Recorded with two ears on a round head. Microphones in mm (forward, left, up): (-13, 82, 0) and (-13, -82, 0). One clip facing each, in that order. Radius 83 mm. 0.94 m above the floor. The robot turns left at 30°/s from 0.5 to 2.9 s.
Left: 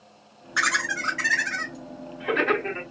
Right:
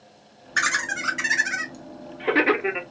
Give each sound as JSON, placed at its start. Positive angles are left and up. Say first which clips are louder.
{"t": 0.6, "sound": "laughter", "louder": "even", "side_deg": -25, "distance_m": 1.3}